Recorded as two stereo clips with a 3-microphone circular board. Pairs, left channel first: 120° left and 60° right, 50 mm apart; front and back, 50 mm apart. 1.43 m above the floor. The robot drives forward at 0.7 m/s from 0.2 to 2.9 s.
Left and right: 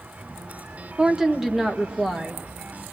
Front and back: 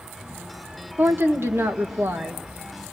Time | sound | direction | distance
1.0 | a woman speaking | 130° right | 1.2 m